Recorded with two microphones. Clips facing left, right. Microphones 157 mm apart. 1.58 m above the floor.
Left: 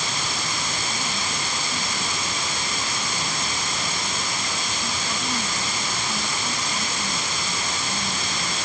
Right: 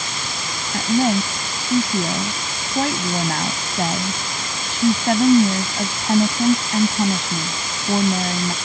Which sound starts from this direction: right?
A woman speaking, at 0.7 s.